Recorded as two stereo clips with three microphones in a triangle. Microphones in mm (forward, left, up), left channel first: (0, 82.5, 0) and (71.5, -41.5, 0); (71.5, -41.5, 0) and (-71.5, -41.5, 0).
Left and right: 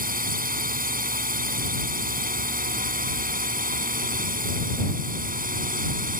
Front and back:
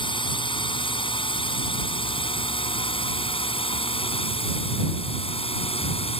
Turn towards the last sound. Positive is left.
turn(degrees=-45)